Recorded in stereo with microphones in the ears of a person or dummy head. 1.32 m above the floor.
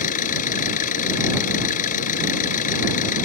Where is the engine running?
45° left (ahead or behind).